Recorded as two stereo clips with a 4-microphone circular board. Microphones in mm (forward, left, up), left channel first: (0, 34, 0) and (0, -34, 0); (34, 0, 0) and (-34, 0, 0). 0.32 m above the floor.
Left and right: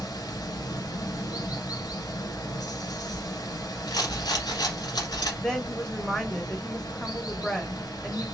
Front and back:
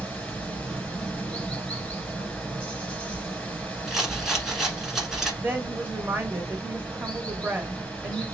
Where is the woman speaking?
160° left, 1.0 m.